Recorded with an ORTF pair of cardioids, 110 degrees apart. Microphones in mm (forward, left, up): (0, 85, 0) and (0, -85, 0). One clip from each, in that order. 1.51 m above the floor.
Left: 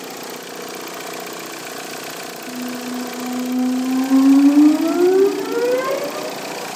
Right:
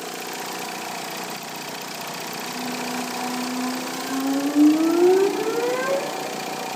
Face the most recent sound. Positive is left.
turn(degrees=50)